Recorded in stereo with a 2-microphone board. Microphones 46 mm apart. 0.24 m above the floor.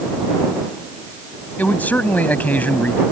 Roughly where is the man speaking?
Left.